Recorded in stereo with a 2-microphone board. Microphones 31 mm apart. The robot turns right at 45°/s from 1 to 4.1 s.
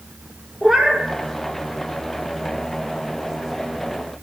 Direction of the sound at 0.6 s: 15° right (ahead or behind).